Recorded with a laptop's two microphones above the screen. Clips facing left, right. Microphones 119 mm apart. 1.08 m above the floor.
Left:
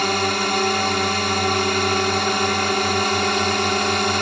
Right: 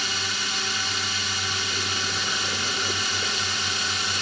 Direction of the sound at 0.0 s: 60° left (ahead or behind).